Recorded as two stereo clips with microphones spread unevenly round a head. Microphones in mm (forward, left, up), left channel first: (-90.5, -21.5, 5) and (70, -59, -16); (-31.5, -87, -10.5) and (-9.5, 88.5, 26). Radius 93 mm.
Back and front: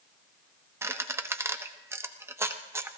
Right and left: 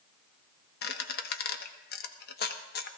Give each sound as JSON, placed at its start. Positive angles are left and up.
{"t": 0.8, "sound": "a squeak", "azimuth_deg": -90, "distance_m": 1.1}